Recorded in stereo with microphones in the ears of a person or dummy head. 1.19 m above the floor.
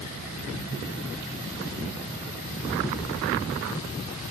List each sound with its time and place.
0.0 s an insect: 50° right (ahead or behind)